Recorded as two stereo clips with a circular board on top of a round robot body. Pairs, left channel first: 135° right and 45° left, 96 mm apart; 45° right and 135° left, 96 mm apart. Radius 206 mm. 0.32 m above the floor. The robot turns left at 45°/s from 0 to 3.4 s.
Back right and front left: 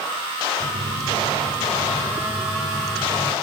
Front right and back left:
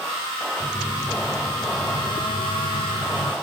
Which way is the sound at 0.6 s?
50° left.